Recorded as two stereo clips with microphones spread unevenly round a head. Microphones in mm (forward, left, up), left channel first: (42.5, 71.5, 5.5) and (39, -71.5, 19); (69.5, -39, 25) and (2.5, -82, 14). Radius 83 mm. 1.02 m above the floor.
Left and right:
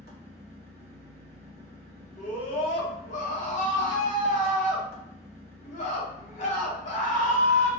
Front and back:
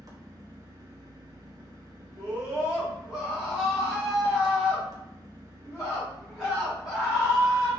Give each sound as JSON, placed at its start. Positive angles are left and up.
{"t": 0.0, "sound": "an engine running", "azimuth_deg": -105, "distance_m": 0.8}
{"t": 2.2, "sound": "a scream", "azimuth_deg": 130, "distance_m": 1.0}